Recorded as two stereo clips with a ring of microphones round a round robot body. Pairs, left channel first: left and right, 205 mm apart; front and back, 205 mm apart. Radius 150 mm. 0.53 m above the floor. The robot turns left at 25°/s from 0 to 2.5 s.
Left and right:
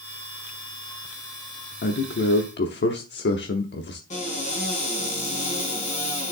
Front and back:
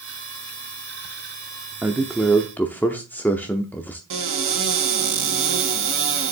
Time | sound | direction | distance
1.8 | a man speaking | 95° left | 1.0 m
4.1 | a cupboard door | 160° left | 4.5 m